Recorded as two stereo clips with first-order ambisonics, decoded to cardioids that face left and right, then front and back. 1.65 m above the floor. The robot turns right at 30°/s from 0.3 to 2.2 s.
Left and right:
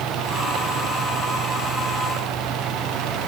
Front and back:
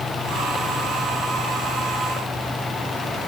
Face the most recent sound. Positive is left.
No sound to turn to.